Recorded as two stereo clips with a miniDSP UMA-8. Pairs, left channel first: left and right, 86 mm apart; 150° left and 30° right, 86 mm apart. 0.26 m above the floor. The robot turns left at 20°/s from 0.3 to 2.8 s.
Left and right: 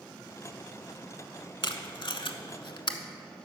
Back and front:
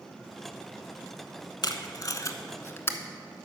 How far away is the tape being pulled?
About 0.7 m.